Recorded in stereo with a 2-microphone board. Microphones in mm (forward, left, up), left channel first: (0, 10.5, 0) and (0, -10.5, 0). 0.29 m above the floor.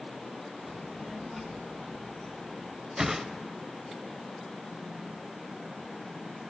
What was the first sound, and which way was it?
A child speaking, 25° right (ahead or behind).